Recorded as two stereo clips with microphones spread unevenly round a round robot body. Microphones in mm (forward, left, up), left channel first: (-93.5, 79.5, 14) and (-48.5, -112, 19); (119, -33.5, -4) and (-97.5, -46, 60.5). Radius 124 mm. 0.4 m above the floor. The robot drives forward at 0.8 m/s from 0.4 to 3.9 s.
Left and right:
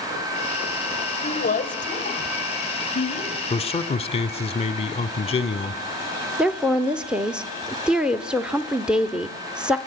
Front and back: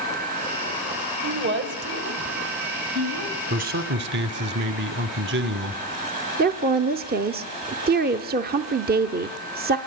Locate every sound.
1.2 s a woman speaking: 130° left, 1.9 m; by 3.4 s 155° left, 3 m
3.5 s a man speaking: 125° left, 1.0 m; by 5.8 s 145° left, 1.1 m
6.4 s a woman speaking: 160° right, 0.8 m